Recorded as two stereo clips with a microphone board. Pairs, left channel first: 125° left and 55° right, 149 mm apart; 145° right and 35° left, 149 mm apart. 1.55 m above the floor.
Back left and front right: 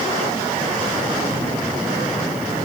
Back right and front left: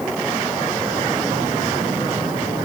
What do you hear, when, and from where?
Only background noise.